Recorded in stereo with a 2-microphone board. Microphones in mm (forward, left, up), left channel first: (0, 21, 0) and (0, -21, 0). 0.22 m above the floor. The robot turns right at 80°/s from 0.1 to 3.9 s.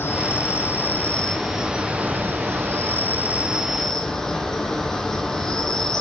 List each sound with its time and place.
0.0 s an insect: 65° left, 1.0 m; by 6.0 s 10° left, 1.0 m